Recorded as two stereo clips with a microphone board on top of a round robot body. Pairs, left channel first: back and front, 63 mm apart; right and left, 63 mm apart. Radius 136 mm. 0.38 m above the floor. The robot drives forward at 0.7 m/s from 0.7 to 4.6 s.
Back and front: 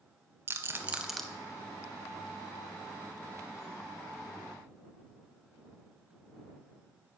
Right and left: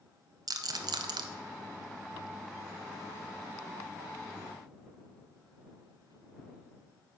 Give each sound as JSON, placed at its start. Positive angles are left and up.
{"t": 0.5, "sound": "a rattle", "azimuth_deg": 60, "distance_m": 0.6}